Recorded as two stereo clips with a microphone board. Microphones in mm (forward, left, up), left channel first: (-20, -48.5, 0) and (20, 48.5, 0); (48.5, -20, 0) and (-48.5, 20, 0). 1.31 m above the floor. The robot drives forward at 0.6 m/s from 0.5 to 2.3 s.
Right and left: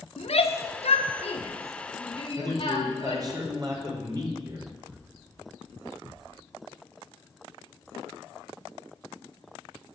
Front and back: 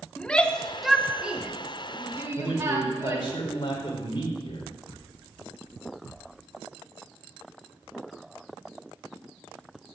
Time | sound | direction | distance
0.2 | a shout | 105° right | 1.2 m
2.4 | a man speaking | 20° left | 4 m